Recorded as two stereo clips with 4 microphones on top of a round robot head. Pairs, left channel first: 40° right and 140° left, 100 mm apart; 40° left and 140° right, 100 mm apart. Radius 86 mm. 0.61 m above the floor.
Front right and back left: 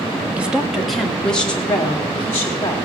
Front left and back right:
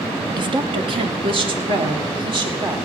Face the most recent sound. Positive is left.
turn(degrees=-110)